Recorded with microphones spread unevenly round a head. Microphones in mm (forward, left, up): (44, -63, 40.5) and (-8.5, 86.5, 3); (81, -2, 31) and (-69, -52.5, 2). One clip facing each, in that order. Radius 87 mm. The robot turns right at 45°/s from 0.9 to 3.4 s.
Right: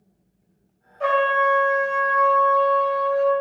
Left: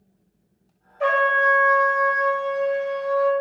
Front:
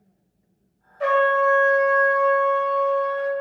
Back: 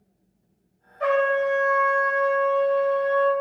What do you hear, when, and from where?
1.0 s a trumpet: 20° left, 0.8 m; by 3.3 s 120° left, 0.8 m